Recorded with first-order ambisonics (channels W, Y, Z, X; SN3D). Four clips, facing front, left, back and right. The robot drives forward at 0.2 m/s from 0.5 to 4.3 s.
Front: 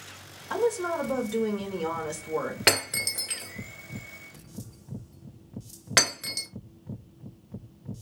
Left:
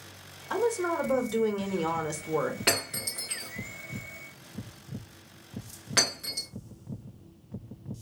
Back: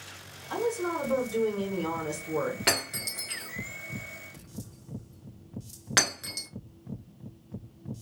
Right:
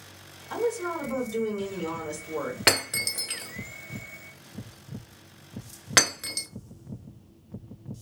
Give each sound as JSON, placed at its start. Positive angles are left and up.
{"t": 0.5, "sound": "a woman speaking", "azimuth_deg": 50, "distance_m": 1.0}
{"t": 2.7, "sound": "breaking glass", "azimuth_deg": -55, "distance_m": 1.0}